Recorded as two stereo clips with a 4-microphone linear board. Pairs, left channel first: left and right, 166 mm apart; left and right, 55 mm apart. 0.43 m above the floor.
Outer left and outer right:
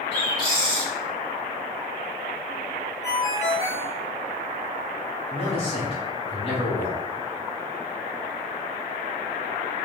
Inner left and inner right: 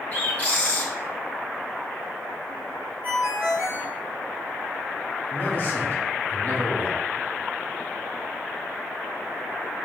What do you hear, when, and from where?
0.1 s a bird: 25° left (ahead or behind), 1.1 m
3.0 s a ringtone: 25° right (ahead or behind), 1.6 m
5.3 s a man speaking: 35° left (ahead or behind), 1.4 m